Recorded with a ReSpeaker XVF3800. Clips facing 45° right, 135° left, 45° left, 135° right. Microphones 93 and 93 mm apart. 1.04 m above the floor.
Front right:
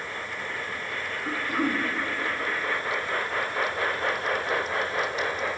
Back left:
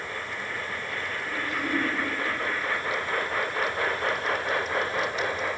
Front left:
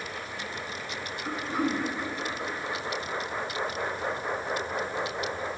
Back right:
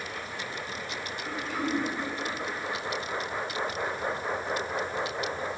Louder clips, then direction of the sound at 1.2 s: Front right 5 dB, front left 3 dB; 15° right.